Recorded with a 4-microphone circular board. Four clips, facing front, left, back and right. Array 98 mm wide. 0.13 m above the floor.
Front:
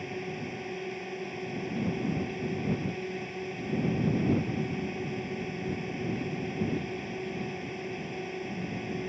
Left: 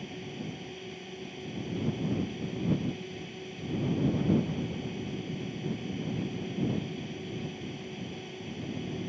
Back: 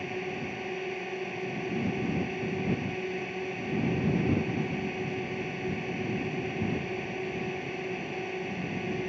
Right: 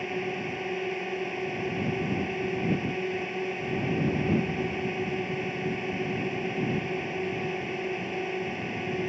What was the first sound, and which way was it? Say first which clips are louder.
A drone: right 8 dB, back 2 dB; 105° right.